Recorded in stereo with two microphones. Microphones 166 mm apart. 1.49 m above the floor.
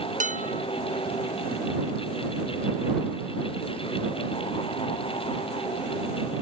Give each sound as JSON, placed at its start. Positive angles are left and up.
{"t": 0.2, "sound": "dishes clattering", "side_deg": -50}